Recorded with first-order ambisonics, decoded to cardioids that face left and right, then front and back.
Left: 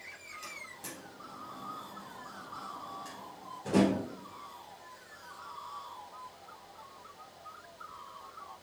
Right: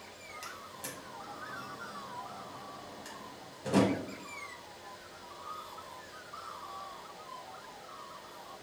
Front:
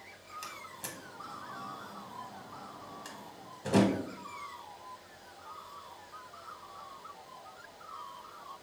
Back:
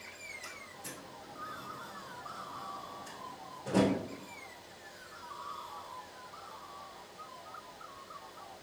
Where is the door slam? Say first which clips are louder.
Right 1 dB, front 2 dB; 20° right, 1.2 m.